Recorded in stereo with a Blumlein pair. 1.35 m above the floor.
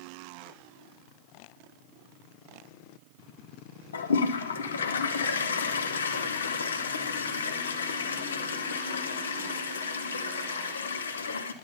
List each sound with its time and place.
3.9 s a toilet flushing: 70° left, 0.6 m